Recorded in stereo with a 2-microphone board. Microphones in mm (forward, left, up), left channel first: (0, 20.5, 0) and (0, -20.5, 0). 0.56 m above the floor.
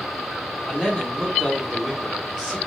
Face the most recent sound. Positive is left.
turn(degrees=-15)  # may be behind; listen again after turning